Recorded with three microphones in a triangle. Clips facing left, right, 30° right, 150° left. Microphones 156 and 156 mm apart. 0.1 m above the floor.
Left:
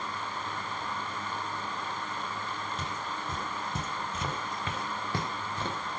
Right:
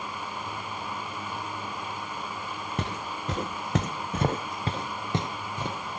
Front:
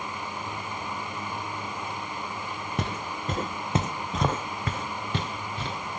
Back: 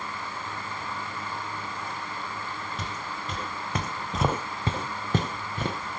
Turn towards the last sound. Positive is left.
turn(degrees=-175)